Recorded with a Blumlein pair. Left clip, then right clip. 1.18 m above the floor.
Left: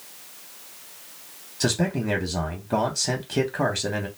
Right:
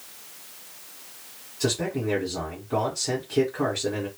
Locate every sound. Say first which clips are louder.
1.6 s a man speaking: left 1 dB; 15° left, 1.0 m